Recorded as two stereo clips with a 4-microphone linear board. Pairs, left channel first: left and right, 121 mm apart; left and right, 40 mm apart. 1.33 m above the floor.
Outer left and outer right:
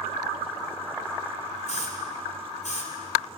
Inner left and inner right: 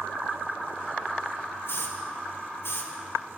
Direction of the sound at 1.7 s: 75° left (ahead or behind).